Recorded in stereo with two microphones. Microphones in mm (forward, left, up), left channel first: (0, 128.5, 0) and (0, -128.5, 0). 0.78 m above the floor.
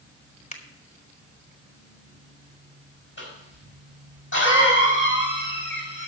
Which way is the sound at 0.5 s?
25° left (ahead or behind).